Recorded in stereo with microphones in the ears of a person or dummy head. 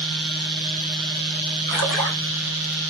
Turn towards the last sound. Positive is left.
turn(degrees=40)  # may be behind; listen again after turning